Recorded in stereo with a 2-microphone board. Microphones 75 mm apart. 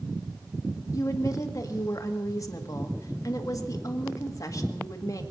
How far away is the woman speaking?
About 1.8 m.